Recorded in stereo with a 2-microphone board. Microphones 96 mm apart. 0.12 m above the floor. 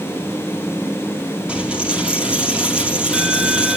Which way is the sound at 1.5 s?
10° right (ahead or behind).